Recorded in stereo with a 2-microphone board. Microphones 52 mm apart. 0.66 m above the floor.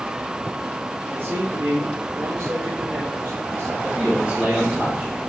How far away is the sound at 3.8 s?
About 2.5 m.